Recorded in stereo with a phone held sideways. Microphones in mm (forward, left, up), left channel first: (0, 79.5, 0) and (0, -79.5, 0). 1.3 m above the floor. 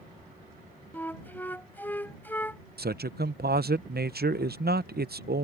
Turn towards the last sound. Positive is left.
turn(degrees=-80)